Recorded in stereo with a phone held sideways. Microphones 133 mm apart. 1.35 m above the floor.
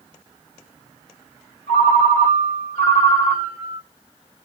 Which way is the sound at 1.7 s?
70° left (ahead or behind).